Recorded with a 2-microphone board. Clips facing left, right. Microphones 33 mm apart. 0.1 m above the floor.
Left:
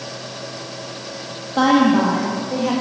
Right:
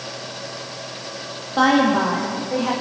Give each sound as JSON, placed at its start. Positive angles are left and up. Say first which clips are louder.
{"t": 1.6, "sound": "a woman speaking", "louder": "left 2 dB", "side_deg": -5, "distance_m": 3.0}